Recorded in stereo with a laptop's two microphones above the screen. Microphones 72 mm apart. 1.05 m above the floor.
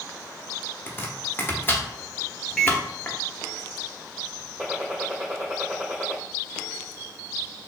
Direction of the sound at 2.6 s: 5° left (ahead or behind).